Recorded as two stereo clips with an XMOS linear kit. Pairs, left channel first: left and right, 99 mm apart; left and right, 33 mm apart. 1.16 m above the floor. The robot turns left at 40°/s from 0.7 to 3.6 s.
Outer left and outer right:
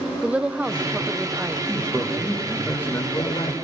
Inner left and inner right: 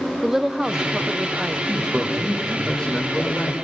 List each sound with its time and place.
0.2 s a woman speaking: 10° right (ahead or behind), 0.6 m; by 2.3 s 25° right (ahead or behind), 0.6 m
1.7 s a man speaking: 150° right, 5.5 m; by 3.5 s 135° left, 5.5 m